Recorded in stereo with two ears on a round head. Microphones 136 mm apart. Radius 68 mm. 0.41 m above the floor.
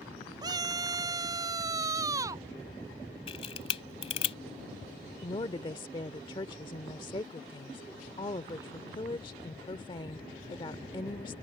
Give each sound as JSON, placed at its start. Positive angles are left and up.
{"t": 0.4, "sound": "a scream", "side_deg": -25}
{"t": 3.3, "sound": "a camera shutter", "side_deg": 40}
{"t": 5.2, "sound": "a woman speaking", "side_deg": 30}